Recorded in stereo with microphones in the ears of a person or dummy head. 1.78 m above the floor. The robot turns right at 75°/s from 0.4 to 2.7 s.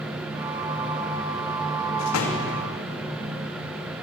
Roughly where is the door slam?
Left.